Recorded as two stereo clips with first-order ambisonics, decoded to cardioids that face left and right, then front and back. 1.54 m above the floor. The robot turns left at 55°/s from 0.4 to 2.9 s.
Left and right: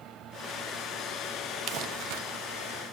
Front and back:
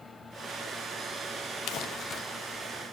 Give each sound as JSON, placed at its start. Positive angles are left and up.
{"t": 1.7, "sound": "crumpling", "azimuth_deg": -45, "distance_m": 0.6}